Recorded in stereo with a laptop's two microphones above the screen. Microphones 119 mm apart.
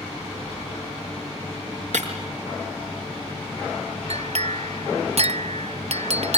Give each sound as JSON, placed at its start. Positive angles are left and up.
{"t": 1.9, "sound": "breaking glass", "side_deg": -80, "distance_m": 6.0}
{"t": 4.1, "sound": "a clink", "side_deg": -60, "distance_m": 0.7}